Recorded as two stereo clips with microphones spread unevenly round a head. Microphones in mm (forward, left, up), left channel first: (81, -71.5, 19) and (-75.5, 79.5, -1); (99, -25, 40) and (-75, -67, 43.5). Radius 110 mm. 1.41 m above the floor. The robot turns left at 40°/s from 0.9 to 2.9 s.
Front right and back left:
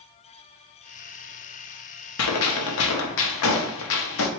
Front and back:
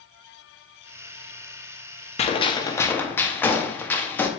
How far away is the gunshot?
About 0.7 m.